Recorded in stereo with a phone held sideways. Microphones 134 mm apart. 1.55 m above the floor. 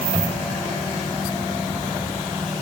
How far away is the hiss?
I don't hear a hiss.